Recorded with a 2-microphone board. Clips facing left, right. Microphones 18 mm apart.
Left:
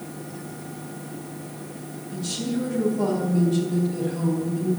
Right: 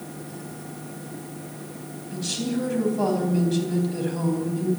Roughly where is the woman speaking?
Right.